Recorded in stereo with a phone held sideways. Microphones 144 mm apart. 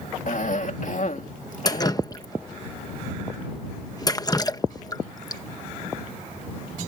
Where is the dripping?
25° left (ahead or behind).